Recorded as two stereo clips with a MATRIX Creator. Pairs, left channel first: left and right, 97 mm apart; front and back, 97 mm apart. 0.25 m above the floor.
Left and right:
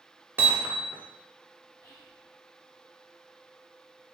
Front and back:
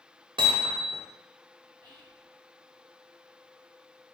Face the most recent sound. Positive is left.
turn(degrees=70)